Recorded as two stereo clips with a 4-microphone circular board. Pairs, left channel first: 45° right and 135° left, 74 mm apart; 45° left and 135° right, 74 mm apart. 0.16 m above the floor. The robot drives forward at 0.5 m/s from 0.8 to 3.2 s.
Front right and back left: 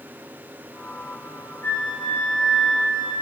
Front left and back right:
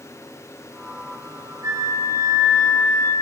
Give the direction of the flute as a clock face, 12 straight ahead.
3 o'clock.